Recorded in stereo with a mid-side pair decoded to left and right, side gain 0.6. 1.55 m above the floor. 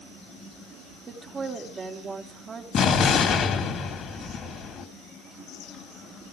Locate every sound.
1.1 s a woman speaking: 30° right, 4.5 m
2.7 s an explosion: 50° left, 3 m